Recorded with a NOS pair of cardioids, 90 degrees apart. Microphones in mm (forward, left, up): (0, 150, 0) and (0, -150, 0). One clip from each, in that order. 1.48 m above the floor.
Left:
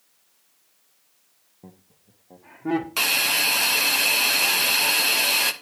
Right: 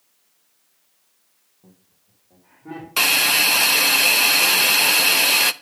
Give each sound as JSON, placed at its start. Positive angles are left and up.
{"t": 1.6, "sound": "laughter", "azimuth_deg": 60, "distance_m": 1.1}
{"t": 3.0, "sound": "a hiss", "azimuth_deg": -25, "distance_m": 0.6}